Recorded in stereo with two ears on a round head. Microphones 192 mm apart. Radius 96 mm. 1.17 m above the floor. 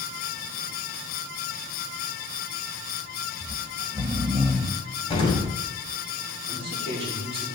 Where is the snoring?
5° right (ahead or behind), 1.6 m.